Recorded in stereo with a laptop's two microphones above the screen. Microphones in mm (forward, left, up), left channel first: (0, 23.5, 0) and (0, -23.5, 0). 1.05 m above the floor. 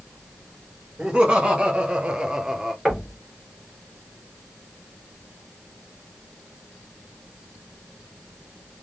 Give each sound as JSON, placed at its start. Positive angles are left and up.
{"t": 1.0, "sound": "laughter", "side_deg": -20, "distance_m": 1.6}
{"t": 2.9, "sound": "knocking", "side_deg": -5, "distance_m": 0.9}